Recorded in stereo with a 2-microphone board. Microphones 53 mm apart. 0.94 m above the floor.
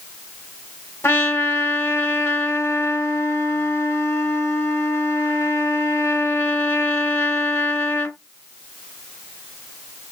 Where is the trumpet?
45° left (ahead or behind), 0.9 m.